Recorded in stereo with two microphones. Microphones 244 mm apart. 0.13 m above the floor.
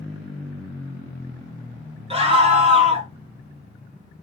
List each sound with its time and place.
2.1 s a scream: 25° right (ahead or behind), 1.5 m